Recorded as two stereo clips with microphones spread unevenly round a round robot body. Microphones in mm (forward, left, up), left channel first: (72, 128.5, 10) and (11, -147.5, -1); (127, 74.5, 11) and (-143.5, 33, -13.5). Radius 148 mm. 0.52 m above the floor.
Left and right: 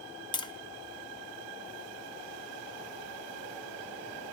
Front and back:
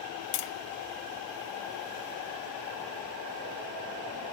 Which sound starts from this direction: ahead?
Tapping, at 0.3 s.